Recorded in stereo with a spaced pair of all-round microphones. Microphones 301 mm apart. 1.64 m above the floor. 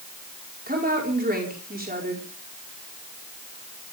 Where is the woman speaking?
30° right (ahead or behind), 5 m.